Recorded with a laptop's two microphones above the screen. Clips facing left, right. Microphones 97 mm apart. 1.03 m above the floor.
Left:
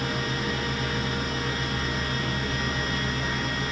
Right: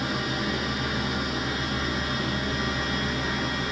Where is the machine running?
15° right (ahead or behind), 0.8 m.